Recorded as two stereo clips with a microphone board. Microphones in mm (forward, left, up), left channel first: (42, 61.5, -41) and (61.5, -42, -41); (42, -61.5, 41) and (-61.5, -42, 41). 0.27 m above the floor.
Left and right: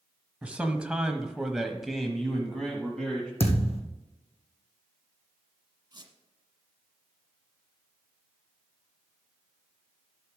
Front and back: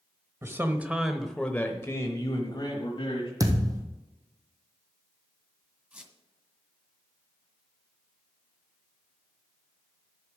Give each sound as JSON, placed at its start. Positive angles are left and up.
{"t": 0.4, "sound": "a man speaking", "azimuth_deg": -145, "distance_m": 1.2}
{"t": 3.4, "sound": "a thud", "azimuth_deg": 115, "distance_m": 1.9}
{"t": 5.9, "sound": "a squeak", "azimuth_deg": -115, "distance_m": 1.6}